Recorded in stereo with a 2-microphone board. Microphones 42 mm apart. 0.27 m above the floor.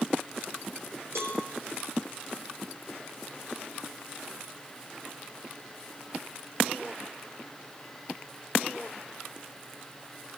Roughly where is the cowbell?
Right.